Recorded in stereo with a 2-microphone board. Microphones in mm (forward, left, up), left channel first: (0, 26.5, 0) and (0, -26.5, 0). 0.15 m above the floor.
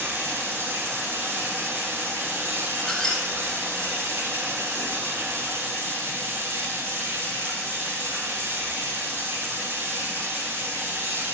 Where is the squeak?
5° left (ahead or behind), 4 m.